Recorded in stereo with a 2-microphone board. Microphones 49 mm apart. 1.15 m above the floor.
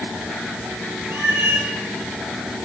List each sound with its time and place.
1.1 s a cat meowing: 50° right (ahead or behind), 4.5 m